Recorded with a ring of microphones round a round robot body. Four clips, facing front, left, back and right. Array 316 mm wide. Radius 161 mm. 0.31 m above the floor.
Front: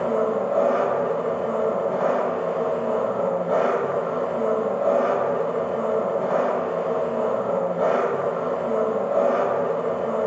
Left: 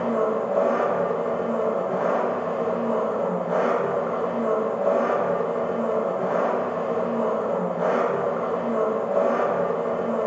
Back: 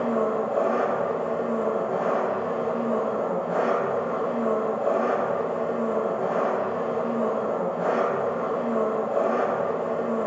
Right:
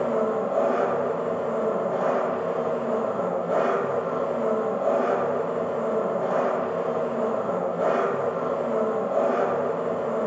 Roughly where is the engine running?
Ahead.